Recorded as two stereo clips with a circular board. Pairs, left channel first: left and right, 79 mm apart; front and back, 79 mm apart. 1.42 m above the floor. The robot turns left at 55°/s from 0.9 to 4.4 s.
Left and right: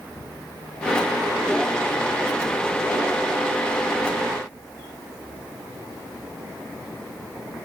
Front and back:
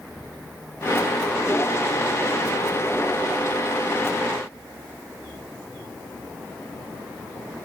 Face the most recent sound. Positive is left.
No sound to turn to.